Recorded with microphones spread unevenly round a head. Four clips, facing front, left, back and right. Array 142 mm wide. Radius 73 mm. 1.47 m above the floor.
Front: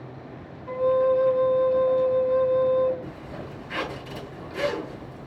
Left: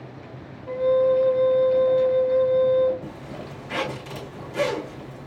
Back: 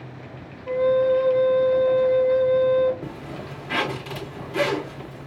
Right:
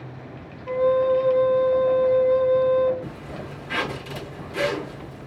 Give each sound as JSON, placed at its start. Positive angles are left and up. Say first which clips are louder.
{"t": 0.7, "sound": "a flute", "louder": "even, back 2 dB", "azimuth_deg": -165, "distance_m": 3.0}
{"t": 3.0, "sound": "a zipper", "louder": "right 1 dB, back 3 dB", "azimuth_deg": 170, "distance_m": 3.5}